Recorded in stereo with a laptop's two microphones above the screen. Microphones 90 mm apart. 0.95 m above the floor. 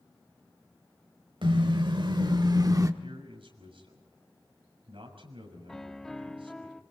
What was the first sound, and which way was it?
A car horn, 70° right (ahead or behind).